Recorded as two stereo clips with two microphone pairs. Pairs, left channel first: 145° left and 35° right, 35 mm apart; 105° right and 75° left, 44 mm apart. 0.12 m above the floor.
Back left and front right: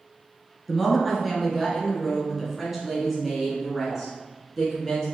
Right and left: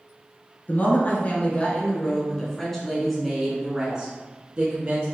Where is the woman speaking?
120° right, 1.7 m; by 5.1 s 45° left, 1.6 m.